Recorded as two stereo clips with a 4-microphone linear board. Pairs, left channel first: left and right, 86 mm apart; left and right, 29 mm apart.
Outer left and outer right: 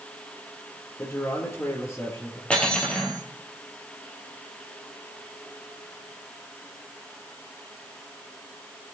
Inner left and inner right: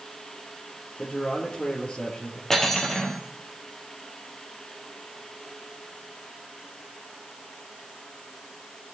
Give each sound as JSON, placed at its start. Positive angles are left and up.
{"t": 1.0, "sound": "a man speaking", "side_deg": 35, "distance_m": 3.5}
{"t": 2.5, "sound": "cutlery clinking", "side_deg": 15, "distance_m": 2.5}